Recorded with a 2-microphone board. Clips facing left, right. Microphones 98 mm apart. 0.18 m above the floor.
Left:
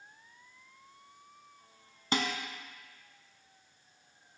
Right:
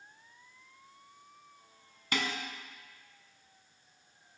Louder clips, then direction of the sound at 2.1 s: Left 2 dB; 30° left (ahead or behind).